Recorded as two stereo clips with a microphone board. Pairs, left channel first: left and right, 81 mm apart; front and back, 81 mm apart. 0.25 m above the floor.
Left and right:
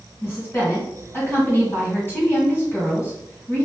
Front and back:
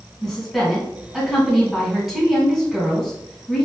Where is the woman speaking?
100° left, 1.6 m.